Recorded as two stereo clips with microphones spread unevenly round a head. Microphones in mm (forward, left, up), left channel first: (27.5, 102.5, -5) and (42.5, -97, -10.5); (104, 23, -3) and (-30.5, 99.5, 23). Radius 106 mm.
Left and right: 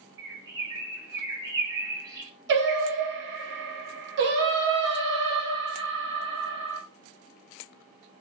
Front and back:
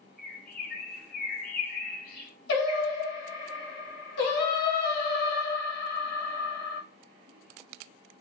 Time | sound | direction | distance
0.2 | a bird | 25° right | 1.6 m
2.5 | singing | 60° right | 0.8 m